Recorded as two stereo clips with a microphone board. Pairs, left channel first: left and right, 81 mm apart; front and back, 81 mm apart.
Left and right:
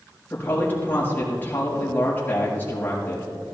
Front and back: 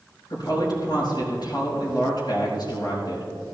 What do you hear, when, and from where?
0.3 s a woman speaking: 25° left, 5.5 m